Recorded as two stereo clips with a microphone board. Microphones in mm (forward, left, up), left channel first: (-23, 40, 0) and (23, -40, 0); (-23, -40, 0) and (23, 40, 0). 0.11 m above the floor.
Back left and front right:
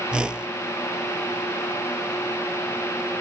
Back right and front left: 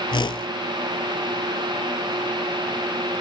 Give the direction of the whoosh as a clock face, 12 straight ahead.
5 o'clock.